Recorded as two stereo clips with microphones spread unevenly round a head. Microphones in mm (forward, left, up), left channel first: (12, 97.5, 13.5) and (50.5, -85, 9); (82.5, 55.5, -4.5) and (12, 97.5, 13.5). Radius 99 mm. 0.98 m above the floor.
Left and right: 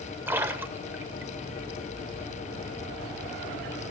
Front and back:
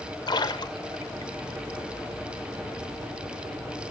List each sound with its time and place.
0.3 s a splash: straight ahead, 1.0 m